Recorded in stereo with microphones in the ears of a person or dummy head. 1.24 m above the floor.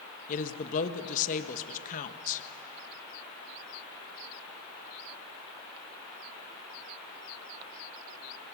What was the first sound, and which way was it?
A woman speaking, 45° left (ahead or behind).